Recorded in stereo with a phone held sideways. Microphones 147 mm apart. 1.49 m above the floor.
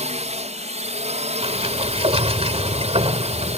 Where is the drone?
50° right (ahead or behind).